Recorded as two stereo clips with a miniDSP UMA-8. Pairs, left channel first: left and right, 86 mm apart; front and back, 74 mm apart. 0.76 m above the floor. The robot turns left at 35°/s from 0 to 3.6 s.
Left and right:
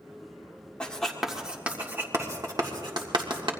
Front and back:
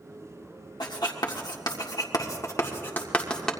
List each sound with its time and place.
0.8 s writing: 10° left, 1.8 m; by 3.5 s 85° right, 1.8 m